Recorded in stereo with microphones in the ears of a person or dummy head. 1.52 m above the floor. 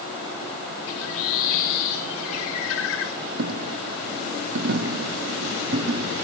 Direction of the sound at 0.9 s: 85° left.